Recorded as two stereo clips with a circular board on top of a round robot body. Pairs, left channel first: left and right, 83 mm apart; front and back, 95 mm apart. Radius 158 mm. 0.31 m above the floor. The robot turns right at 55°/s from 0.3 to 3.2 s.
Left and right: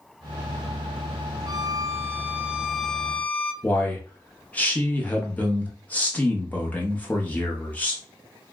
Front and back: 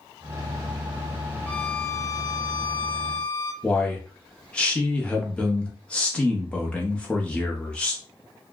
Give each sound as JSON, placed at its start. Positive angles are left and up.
{"t": 1.5, "sound": "a violin", "azimuth_deg": -70, "distance_m": 0.7}
{"t": 3.6, "sound": "a man speaking", "azimuth_deg": 60, "distance_m": 0.9}